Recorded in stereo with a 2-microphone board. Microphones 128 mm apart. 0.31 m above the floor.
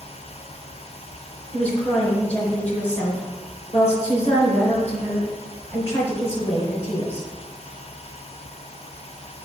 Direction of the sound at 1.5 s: 55° left (ahead or behind).